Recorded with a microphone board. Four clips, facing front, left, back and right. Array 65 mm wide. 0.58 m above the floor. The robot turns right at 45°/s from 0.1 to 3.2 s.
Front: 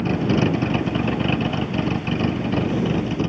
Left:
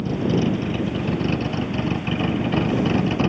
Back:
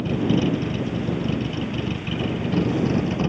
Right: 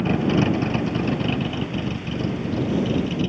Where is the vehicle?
50° right; by 3.3 s 90° left.